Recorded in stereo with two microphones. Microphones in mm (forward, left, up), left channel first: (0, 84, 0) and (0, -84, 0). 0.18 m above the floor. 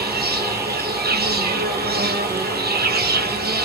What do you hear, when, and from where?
0.0 s an insect: 75° right (ahead or behind), 1.1 m